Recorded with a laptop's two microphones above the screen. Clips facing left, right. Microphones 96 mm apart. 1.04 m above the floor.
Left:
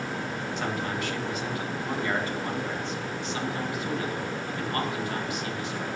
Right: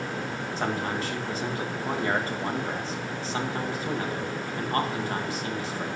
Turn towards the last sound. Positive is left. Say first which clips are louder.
# right 3 dB
turn(degrees=-35)  # may be behind; listen again after turning